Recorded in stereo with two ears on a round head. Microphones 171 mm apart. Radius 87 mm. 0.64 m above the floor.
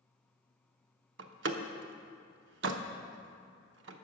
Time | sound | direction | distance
1.2 | a door slam | 65° right (ahead or behind) | 0.8 m